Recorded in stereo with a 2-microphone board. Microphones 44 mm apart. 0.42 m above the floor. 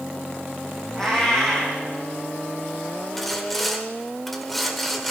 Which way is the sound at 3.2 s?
5° left (ahead or behind).